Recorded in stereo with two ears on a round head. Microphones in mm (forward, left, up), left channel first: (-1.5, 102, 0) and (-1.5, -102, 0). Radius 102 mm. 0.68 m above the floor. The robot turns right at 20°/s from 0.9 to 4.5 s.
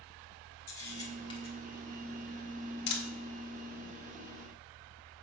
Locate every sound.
0.7 s a camera shutter: 15° left (ahead or behind), 1.3 m; by 3.0 s 50° left (ahead or behind), 1.3 m